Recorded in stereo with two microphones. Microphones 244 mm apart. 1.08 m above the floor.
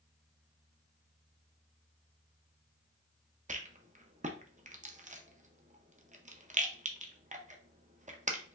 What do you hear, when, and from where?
3.5 s a rattle: 30° right (ahead or behind), 0.6 m